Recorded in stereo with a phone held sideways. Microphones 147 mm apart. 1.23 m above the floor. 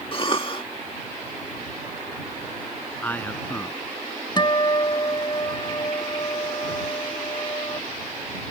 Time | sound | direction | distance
0.1 | a cough | 40° left (ahead or behind) | ?
3.0 | a man speaking | 10° left (ahead or behind) | ?
4.4 | a guitar | 30° left (ahead or behind) | ?